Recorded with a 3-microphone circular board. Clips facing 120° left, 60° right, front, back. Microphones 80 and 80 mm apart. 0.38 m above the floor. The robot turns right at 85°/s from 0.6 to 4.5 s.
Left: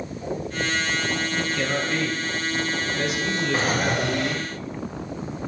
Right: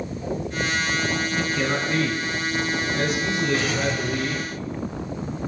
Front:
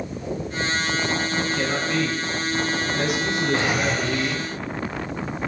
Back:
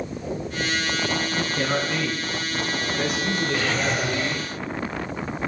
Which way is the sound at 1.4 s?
155° right.